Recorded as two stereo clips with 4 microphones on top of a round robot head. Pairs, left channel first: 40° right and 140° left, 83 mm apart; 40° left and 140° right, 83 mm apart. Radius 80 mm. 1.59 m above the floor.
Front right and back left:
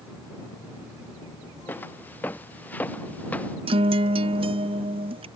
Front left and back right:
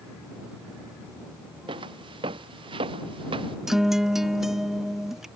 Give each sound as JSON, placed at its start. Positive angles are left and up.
{"t": 1.7, "sound": "footsteps", "azimuth_deg": -110}
{"t": 3.7, "sound": "a guitar", "azimuth_deg": 135}